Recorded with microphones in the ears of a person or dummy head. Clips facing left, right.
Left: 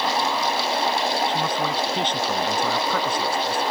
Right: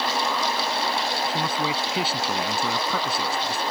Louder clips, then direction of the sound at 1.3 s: Left 2 dB; 10° right (ahead or behind).